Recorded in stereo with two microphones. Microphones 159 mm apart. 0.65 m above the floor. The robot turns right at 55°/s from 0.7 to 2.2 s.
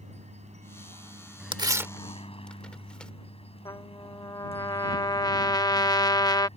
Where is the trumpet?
25° left (ahead or behind).